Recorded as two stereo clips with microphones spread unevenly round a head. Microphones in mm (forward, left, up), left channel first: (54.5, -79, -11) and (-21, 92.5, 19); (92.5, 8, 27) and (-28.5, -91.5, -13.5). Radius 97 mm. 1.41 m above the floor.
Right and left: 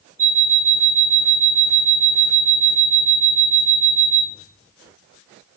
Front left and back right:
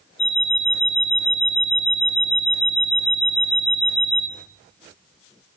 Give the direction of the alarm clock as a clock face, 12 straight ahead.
10 o'clock.